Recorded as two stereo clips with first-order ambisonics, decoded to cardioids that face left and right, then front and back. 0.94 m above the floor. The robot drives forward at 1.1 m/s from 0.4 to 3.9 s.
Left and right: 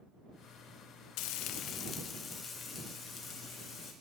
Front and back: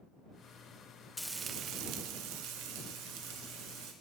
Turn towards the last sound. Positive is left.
turn(degrees=170)